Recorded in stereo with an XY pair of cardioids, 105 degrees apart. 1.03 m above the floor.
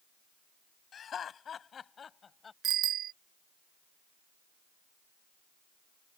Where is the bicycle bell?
65° right.